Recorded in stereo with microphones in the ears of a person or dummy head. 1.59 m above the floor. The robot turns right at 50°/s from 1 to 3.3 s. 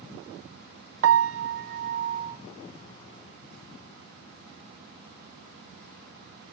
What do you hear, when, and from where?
1.0 s a piano: 90° right, 0.9 m; by 2.4 s 20° right, 0.9 m